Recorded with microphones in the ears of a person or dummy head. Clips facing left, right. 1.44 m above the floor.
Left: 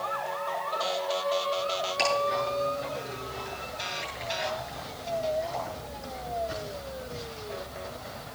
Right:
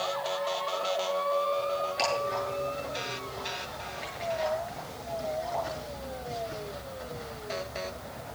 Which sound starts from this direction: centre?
Ticking, at 2.0 s.